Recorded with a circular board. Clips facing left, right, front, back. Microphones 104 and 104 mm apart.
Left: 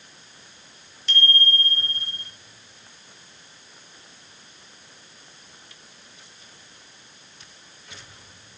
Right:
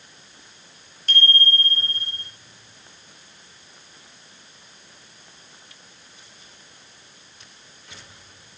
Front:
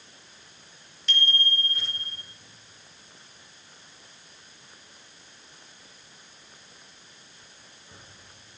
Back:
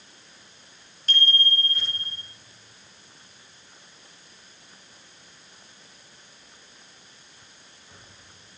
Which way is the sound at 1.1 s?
130° right.